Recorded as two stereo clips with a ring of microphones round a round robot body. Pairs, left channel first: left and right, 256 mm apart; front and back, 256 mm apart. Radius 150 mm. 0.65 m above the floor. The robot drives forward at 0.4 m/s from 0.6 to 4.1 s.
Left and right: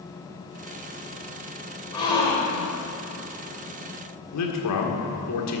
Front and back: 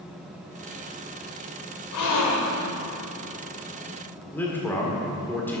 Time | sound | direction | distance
1.9 | a gasp | 15° left | 2 m
4.3 | a man speaking | 85° left | 1.8 m